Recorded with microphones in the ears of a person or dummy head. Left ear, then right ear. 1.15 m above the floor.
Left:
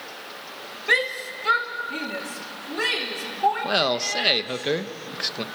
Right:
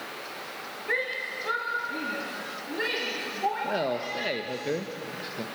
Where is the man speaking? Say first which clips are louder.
Left 6 dB; 50° left (ahead or behind), 1.1 m.